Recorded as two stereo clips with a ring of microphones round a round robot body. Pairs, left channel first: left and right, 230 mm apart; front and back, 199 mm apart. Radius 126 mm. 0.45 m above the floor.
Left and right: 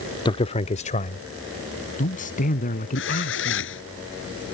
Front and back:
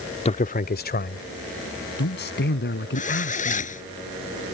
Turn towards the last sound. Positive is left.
turn(degrees=50)